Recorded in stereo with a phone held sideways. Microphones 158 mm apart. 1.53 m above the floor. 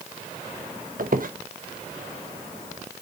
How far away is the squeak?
About 1.1 m.